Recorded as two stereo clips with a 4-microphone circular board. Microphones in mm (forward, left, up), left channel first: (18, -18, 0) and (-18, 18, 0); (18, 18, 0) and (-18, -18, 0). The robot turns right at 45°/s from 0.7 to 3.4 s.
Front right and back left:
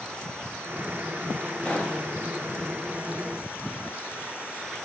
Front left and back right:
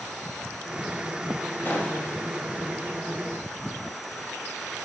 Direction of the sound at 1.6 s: 10° left.